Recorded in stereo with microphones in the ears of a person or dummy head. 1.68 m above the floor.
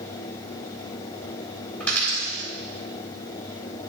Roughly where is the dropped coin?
Centre.